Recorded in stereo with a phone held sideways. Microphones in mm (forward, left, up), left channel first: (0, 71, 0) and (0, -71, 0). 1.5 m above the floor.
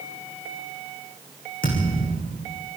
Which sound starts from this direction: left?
A thud, at 1.6 s.